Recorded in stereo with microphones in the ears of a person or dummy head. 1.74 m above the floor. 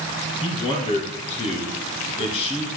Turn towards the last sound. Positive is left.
turn(degrees=30)  # may be behind; listen again after turning